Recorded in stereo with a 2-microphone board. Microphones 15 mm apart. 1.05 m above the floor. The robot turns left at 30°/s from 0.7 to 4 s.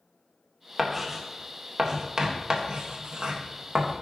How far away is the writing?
About 1.3 m.